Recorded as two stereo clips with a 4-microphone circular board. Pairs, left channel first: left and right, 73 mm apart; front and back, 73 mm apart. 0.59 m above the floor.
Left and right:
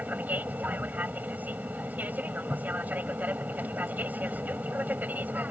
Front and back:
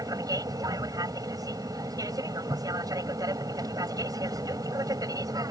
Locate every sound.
0.0 s an aircraft: 155° right